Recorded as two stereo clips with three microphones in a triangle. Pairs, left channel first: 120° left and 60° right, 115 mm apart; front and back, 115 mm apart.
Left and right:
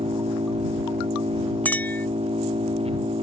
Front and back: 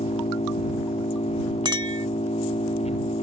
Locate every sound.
0.0 s an engine running: 25° right
1.6 s a clink: 175° right